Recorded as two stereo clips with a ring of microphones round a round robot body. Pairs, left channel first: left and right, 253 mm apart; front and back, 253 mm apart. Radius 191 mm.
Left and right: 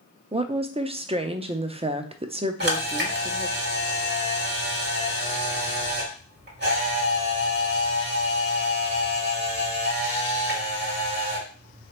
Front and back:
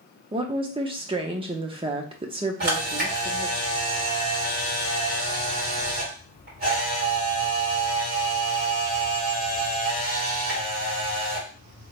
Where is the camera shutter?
130° right, 2.5 m.